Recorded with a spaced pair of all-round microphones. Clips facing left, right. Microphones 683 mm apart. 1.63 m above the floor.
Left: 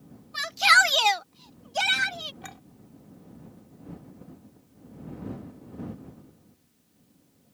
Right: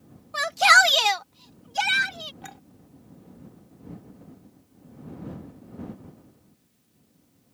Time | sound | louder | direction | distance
0.3 | a shout | right 6 dB | 70° right (ahead or behind) | ?
2.4 | a clink | right 1 dB | 10° left (ahead or behind) | ?